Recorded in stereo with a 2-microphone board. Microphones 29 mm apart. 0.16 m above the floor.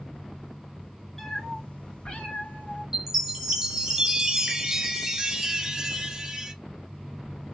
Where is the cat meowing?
10° left (ahead or behind), 1.1 m; by 2.8 s 55° left (ahead or behind), 1.8 m.